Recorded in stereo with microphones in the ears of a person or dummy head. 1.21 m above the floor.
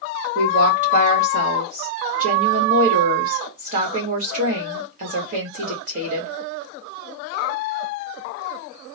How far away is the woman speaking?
About 1.6 m.